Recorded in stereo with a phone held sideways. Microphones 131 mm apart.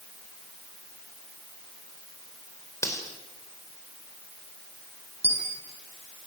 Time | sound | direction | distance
2.8 | cutlery clinking | 25° left (ahead or behind) | 4 m
5.2 | a dropped coin | 60° right (ahead or behind) | 6.5 m